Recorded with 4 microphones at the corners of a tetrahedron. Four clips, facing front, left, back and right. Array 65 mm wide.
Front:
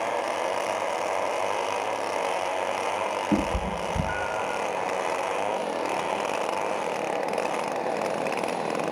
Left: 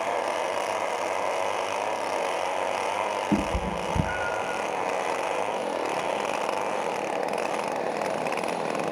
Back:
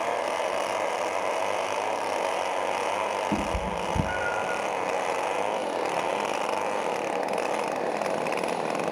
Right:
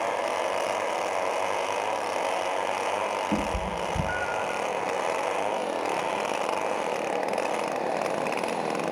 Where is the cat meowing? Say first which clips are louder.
Left 1 dB, front 2 dB; 50° left, 1.1 m; by 4.6 s 165° left, 1.5 m.